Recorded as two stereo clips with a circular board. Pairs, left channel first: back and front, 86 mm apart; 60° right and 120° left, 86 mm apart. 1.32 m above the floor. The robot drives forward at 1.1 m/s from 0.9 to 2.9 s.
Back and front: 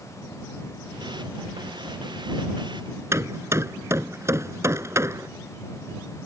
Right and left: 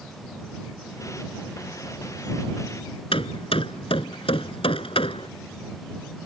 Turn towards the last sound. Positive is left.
turn(degrees=-60)